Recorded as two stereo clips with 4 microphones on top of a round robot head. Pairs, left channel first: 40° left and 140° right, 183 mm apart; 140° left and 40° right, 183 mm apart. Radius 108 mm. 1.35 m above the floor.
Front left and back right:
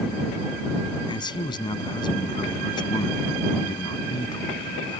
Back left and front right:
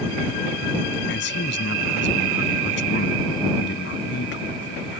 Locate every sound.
1.1 s a man speaking: 110° left